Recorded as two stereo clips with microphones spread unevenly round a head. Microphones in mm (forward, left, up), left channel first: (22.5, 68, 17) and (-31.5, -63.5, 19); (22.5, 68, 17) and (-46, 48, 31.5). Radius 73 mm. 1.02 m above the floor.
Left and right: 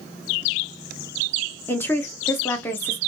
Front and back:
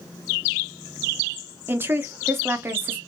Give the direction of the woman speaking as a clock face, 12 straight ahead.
7 o'clock.